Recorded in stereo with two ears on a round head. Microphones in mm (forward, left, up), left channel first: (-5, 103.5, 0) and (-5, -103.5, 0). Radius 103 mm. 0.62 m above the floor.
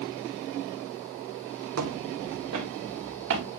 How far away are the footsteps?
About 1.7 m.